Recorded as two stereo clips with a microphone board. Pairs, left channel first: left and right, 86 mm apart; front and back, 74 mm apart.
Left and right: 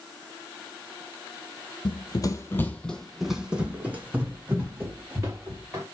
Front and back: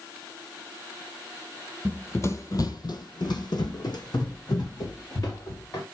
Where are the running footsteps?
70° left, 0.5 m; by 5.8 s 30° right, 1.9 m.